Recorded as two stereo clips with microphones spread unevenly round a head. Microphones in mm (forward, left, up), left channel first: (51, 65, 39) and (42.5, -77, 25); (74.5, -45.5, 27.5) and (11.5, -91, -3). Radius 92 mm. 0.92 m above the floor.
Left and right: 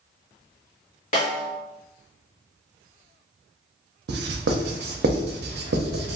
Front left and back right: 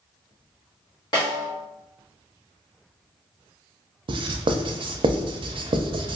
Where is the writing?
120° right, 0.5 m.